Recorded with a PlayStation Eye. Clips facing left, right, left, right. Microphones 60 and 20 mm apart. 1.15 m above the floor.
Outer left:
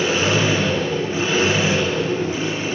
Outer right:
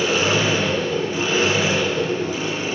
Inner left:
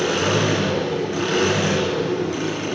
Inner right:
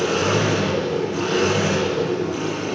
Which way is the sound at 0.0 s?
30° left (ahead or behind).